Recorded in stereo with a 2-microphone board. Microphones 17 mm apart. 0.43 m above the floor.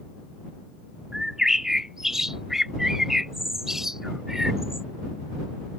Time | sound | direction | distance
1.1 | a bird | 25° right (ahead or behind) | ?